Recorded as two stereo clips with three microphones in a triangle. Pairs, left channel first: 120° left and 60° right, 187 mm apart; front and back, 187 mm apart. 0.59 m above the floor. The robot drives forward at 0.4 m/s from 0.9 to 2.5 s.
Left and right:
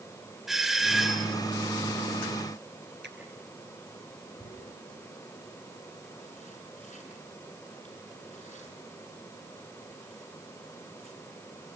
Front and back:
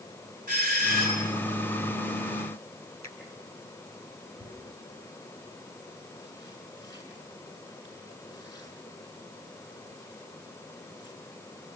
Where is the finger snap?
75° right, 6.5 m.